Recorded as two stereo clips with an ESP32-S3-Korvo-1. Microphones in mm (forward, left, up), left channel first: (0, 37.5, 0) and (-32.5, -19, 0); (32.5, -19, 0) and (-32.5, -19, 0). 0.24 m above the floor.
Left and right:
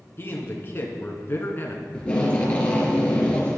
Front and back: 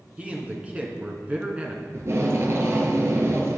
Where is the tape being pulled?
135° left, 2.5 m.